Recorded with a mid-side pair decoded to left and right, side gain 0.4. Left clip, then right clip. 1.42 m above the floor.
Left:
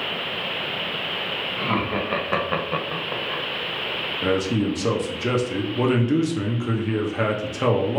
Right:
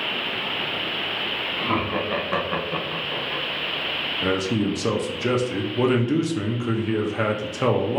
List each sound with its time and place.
1.6 s laughter: 5° left, 1.2 m; by 3.4 s 70° left, 0.9 m
4.2 s a man speaking: 5° right, 0.6 m